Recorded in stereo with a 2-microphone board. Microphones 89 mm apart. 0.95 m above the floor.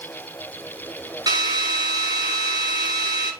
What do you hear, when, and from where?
1.3 s a drill: 45° right (ahead or behind), 10 m